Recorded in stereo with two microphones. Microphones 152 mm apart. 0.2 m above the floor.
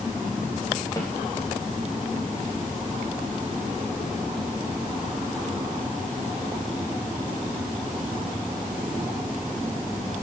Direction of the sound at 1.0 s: 25° left (ahead or behind).